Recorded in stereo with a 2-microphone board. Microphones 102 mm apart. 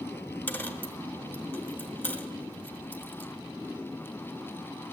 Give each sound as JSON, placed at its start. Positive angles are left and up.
{"t": 0.5, "sound": "a dropped coin", "side_deg": 20, "distance_m": 1.0}